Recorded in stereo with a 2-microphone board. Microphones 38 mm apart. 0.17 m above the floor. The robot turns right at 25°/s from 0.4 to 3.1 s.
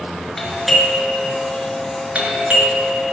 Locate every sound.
0.4 s a doorbell: 175° left, 3 m; by 3.1 s 120° right, 3 m